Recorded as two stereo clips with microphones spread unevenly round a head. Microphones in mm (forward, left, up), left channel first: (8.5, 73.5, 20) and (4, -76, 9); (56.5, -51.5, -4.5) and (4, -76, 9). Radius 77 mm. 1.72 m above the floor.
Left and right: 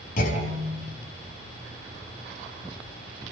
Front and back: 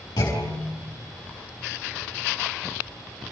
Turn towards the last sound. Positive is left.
turn(degrees=55)